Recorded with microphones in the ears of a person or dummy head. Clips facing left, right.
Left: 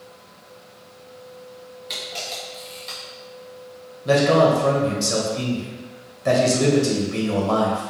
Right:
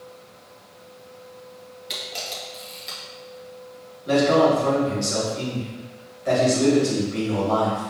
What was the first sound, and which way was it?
A camera shutter, 5° right (ahead or behind).